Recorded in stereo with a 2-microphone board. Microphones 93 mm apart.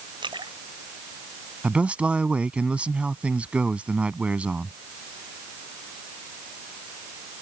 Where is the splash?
55° right (ahead or behind).